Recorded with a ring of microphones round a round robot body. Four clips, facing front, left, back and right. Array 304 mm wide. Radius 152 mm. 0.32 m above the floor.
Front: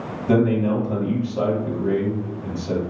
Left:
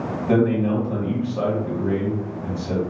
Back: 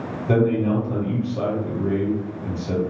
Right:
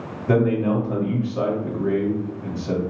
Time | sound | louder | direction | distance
0.3 | a man speaking | even, front 1 dB | 75° right | 1.7 m